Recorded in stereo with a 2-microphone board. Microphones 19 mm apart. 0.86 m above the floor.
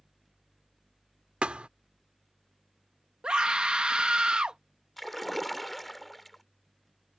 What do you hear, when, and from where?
1.4 s a thud: 70° right (ahead or behind)
3.2 s a scream: 50° right (ahead or behind)
5.0 s a splash: centre (ahead or behind)